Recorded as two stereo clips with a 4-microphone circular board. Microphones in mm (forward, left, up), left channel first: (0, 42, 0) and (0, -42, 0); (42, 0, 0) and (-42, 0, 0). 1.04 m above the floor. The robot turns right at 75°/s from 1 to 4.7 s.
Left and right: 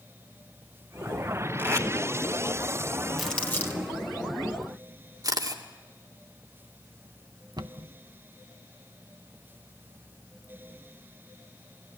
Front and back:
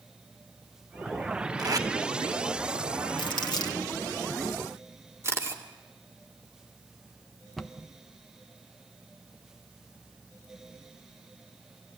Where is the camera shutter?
125° right, 2 m.